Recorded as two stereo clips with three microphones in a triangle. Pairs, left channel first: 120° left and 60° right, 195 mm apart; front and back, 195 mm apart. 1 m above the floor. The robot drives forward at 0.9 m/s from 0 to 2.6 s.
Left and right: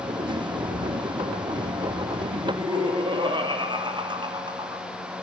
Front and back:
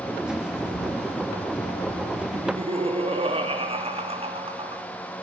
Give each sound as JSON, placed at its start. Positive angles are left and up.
{"t": 0.6, "sound": "a bird", "azimuth_deg": 5, "distance_m": 2.0}
{"t": 2.3, "sound": "laughter", "azimuth_deg": -120, "distance_m": 2.5}